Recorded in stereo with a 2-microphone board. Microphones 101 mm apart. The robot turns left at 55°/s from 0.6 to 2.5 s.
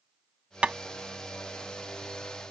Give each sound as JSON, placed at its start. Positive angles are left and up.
{"t": 0.6, "sound": "tapping", "side_deg": -10}